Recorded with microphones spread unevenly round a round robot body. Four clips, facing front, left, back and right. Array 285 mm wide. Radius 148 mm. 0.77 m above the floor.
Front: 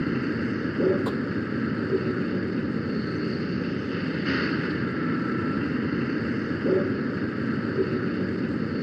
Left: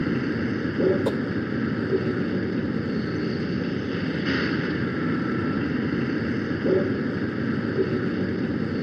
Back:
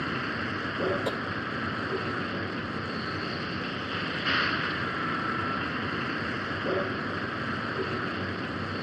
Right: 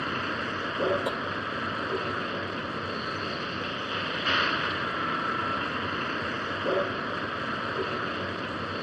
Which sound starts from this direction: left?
Tapping, at 1.1 s.